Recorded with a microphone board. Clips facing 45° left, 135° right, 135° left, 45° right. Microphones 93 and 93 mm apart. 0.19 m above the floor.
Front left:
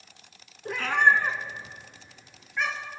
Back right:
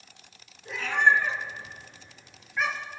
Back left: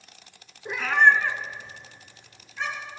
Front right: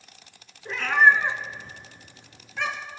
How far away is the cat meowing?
About 1.1 m.